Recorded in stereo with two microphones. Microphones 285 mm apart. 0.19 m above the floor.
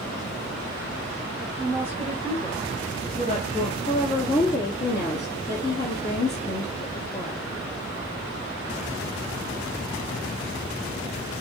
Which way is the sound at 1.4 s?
5° left (ahead or behind).